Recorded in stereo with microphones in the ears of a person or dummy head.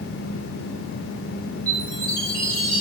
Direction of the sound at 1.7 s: 5° left (ahead or behind).